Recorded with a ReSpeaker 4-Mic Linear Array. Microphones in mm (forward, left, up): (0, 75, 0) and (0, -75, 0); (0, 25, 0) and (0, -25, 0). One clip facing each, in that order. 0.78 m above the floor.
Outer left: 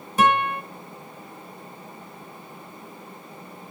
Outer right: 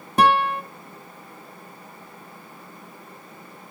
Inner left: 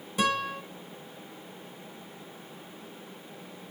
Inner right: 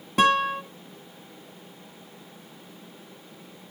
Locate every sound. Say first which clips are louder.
0.2 s a guitar: outer right 2 dB, inner right 7 dB; 65° right (ahead or behind), 1.1 m